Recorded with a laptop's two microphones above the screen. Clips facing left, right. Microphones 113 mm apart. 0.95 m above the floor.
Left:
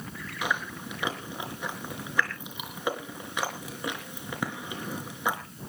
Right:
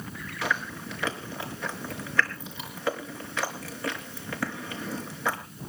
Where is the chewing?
15° left (ahead or behind), 4.5 m.